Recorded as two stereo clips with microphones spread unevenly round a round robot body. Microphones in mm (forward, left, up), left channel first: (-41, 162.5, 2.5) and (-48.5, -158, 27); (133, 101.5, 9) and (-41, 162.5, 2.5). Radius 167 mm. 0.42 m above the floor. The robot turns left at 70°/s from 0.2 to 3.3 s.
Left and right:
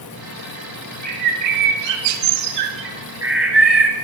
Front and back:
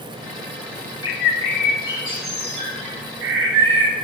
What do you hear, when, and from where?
1.0 s a bird: 20° right, 0.8 m; by 3.9 s straight behind, 0.8 m